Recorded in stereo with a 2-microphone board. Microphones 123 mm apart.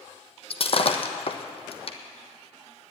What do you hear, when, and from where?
0.5 s breaking glass: 50° left (ahead or behind), 1.1 m